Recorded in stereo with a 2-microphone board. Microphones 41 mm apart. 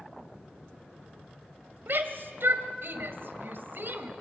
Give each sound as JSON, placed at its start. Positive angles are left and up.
{"t": 1.9, "sound": "a shout", "side_deg": -65, "distance_m": 2.0}